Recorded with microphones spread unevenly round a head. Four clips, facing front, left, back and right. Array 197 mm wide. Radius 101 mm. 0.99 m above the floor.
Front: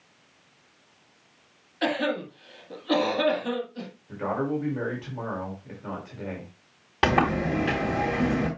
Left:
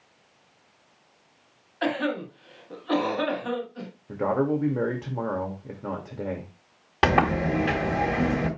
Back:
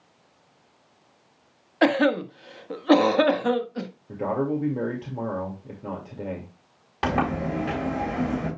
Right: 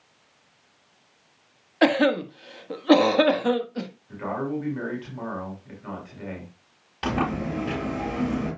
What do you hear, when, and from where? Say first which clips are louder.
1.8 s a cough: right 7 dB, back 6 dB; 120° right, 1.5 m
4.1 s a man speaking: left 5 dB, back 2 dB; 120° left, 2 m
7.0 s a sliding door: left 5 dB, front 2 dB; 60° left, 4.5 m